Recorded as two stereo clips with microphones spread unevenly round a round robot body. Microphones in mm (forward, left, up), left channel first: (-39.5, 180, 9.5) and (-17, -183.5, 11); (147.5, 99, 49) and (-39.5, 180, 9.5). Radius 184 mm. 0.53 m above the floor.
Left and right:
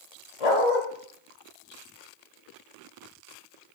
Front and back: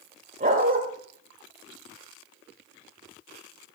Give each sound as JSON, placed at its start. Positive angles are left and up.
{"t": 0.4, "sound": "a dog barking", "azimuth_deg": 105, "distance_m": 6.5}